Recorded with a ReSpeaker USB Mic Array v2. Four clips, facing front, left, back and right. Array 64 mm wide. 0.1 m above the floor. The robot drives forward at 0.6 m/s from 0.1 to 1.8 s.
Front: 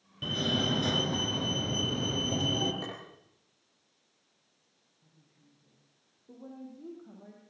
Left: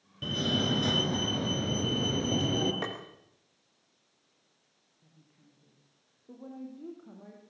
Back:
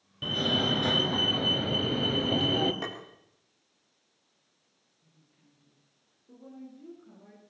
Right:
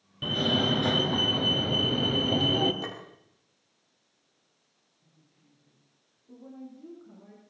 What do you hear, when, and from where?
0.2 s a fire alarm: 115° right, 2 m; by 2.7 s 150° right, 2.5 m
2.8 s tapping: 115° left, 6.5 m
5.0 s a woman speaking: 65° left, 6 m